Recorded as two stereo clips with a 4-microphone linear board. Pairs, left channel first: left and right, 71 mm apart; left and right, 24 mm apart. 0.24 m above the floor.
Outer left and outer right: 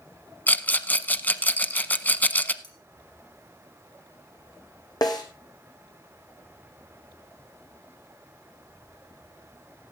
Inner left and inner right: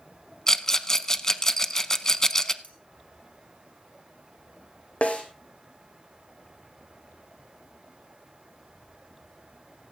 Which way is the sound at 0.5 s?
25° left (ahead or behind).